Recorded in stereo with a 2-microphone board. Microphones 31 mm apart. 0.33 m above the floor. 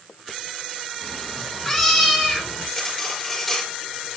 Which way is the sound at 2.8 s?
5° left (ahead or behind).